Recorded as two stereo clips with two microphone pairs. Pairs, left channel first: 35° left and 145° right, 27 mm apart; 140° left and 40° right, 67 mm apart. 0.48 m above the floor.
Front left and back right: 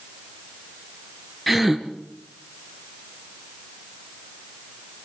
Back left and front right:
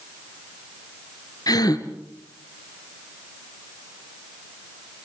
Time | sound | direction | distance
1.5 | a gasp | 125° left | 2.5 m